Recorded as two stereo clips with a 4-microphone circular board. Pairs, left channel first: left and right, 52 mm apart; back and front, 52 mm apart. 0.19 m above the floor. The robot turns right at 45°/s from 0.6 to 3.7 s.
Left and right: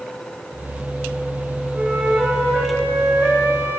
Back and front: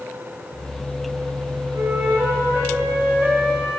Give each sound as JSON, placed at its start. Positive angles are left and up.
{"t": 1.8, "sound": "a flute", "azimuth_deg": -10, "distance_m": 9.5}